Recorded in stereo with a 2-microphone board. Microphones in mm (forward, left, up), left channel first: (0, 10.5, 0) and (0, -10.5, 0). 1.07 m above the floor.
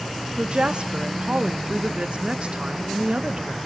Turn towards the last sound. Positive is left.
turn(degrees=-60)  # may be behind; listen again after turning